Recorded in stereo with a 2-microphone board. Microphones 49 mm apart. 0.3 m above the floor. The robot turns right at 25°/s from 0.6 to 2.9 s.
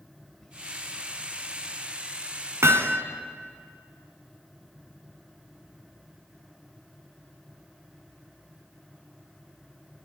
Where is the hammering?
60° right (ahead or behind), 1.7 m; by 3.0 s 65° right (ahead or behind), 1.7 m.